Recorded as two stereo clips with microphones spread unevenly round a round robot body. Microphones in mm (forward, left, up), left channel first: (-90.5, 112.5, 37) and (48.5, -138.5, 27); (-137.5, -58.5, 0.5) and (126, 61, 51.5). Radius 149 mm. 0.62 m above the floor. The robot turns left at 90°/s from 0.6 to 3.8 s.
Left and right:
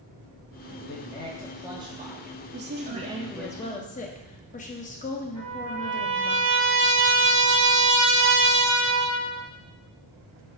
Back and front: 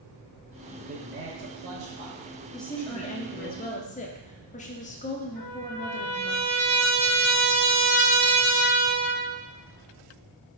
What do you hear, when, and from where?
0.8 s a man speaking: 90° left, 1.3 m; by 3.5 s 150° right, 1.3 m
2.5 s a woman speaking: 75° right, 0.9 m; by 6.4 s 170° left, 0.9 m
5.4 s a trumpet: 30° right, 1.9 m